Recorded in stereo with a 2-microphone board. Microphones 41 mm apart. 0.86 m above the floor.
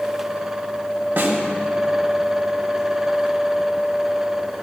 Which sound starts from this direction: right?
A snare drum, at 1.2 s.